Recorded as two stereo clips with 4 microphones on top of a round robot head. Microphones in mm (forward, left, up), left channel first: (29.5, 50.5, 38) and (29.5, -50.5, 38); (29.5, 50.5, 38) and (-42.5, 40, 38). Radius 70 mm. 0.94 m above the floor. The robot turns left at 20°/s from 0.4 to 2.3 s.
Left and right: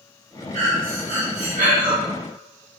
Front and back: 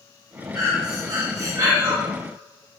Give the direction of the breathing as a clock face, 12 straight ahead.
3 o'clock.